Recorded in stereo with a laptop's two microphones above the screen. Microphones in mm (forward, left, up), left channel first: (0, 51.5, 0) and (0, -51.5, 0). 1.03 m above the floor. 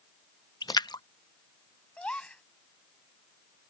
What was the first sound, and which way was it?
A splash, 45° left (ahead or behind).